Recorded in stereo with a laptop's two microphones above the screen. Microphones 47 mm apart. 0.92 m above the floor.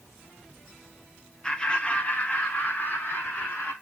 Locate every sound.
1.4 s laughter: 20° left (ahead or behind), 0.8 m; by 3.7 s 40° left (ahead or behind), 2 m